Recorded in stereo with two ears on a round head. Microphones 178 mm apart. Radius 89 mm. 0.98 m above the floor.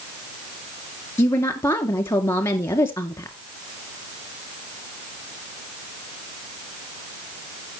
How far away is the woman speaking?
About 2 m.